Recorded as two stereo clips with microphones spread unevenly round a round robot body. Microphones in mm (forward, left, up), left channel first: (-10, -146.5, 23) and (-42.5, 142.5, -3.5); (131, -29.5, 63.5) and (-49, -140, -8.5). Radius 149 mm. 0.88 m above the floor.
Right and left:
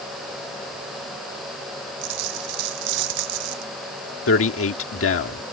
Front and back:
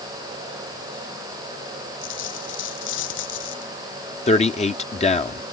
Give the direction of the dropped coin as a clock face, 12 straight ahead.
9 o'clock.